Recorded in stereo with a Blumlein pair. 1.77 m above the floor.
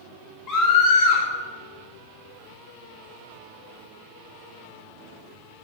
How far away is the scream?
About 3.5 m.